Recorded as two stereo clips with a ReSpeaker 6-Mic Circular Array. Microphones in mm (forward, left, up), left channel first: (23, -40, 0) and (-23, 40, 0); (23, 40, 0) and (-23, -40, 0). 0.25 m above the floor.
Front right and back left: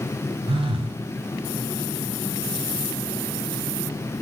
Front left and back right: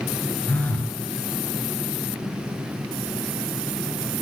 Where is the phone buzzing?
130° left, 0.6 m.